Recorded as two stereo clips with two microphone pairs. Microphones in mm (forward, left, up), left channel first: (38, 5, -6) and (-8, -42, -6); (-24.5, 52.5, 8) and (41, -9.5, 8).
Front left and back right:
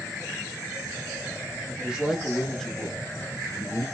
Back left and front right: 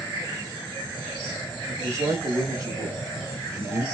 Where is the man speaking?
75° right, 1.2 m; by 3.9 s 15° left, 1.4 m.